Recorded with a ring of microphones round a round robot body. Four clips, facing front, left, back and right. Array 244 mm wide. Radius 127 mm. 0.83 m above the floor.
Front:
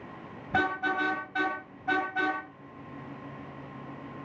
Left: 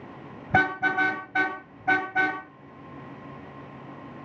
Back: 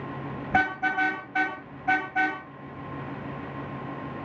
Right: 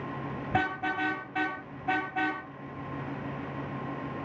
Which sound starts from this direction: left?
A car horn, at 0.5 s.